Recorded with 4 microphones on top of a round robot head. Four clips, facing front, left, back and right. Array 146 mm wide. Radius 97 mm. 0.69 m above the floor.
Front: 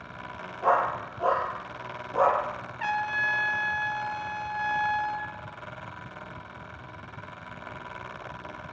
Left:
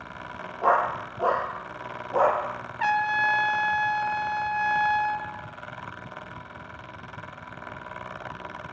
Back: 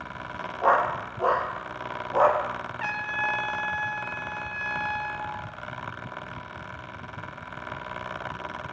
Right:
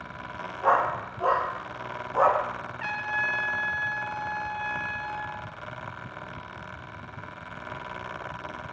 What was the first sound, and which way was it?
A dog barking, 135° left.